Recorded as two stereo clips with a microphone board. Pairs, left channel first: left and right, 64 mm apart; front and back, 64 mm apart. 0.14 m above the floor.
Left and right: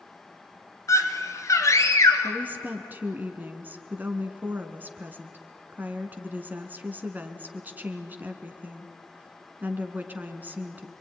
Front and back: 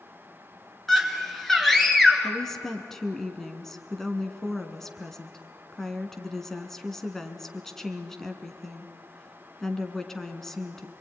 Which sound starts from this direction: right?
A woman speaking, at 2.2 s.